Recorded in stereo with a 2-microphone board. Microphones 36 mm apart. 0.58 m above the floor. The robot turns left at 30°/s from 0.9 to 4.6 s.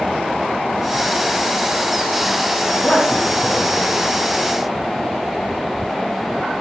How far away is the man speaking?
About 3.5 m.